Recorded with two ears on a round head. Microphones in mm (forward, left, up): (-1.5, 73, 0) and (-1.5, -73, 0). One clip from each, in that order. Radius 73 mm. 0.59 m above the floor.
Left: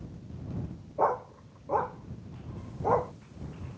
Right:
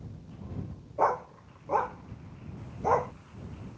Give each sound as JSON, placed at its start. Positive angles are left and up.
{"t": 1.0, "sound": "a dog barking", "side_deg": -55}